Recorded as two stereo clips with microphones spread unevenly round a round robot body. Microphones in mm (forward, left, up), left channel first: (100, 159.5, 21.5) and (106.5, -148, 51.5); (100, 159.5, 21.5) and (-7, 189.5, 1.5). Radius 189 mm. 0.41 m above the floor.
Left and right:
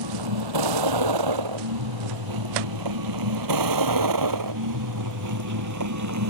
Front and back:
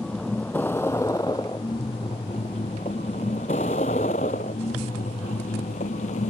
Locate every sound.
0.0 s a vehicle: 105° right; by 6.3 s 55° right